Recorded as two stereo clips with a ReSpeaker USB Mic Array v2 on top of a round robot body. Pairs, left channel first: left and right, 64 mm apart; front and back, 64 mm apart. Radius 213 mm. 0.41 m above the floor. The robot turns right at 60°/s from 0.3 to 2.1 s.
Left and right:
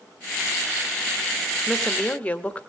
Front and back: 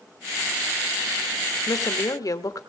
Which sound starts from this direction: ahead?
A woman speaking, at 1.7 s.